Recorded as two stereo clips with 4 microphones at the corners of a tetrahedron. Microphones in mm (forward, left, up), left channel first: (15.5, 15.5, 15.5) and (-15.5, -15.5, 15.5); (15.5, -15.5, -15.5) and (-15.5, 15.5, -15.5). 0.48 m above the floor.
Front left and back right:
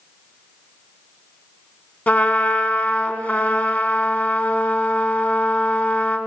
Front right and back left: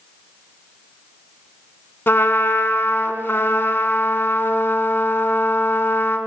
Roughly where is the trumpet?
Ahead.